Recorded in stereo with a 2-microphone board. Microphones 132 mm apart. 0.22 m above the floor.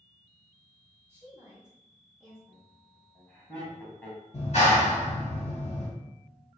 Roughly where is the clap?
Left.